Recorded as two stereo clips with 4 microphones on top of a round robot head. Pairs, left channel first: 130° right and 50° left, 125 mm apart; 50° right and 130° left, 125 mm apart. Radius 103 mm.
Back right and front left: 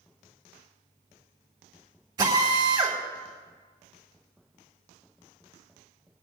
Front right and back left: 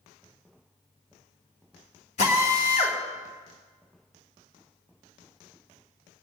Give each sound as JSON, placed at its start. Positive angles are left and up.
{"t": 2.2, "sound": "a drill", "azimuth_deg": -15, "distance_m": 3.0}